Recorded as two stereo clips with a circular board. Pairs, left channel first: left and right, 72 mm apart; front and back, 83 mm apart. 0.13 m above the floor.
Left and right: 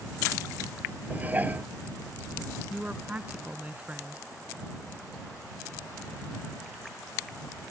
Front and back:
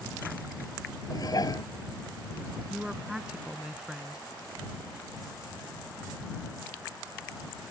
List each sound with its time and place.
1.1 s dishes clattering: 25° right
2.7 s a woman speaking: 110° right